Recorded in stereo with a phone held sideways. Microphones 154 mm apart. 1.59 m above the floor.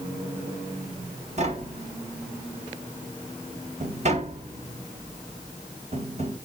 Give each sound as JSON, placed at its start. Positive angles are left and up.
{"t": 1.4, "sound": "tapping", "side_deg": -45, "distance_m": 2.5}